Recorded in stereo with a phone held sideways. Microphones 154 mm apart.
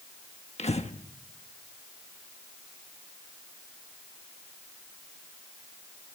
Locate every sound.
0.6 s breathing: 45° left (ahead or behind), 1.2 m